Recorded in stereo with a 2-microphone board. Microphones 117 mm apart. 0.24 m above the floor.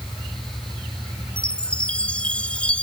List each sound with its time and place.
1.4 s a chime: 10° left (ahead or behind)